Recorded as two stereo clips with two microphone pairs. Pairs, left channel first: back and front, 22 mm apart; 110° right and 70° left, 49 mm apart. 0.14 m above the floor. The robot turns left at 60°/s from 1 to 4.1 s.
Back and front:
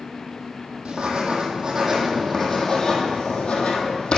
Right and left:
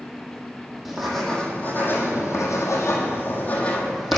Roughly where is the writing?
Ahead.